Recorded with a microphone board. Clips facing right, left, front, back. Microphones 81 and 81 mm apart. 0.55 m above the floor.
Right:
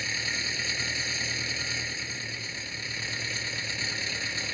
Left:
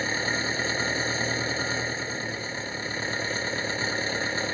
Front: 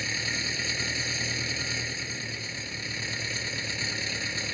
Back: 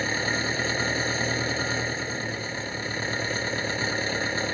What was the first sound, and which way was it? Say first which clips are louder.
An engine running: left 7 dB, back 7 dB; 140° left.